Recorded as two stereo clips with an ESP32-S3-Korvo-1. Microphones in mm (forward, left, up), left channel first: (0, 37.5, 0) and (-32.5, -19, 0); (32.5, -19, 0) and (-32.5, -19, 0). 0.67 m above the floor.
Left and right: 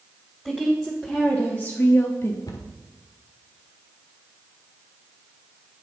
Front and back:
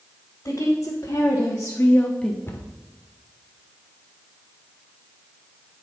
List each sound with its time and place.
0.5 s a woman speaking: 30° right, 2.5 m; by 2.4 s 80° left, 1.3 m
2.5 s a cupboard door: 50° left, 1.3 m